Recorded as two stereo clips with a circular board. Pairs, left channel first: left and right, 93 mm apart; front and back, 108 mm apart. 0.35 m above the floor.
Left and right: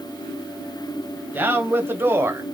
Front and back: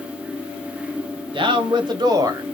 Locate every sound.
1.3 s a man speaking: 155° right, 1.5 m; by 2.4 s 140° right, 1.1 m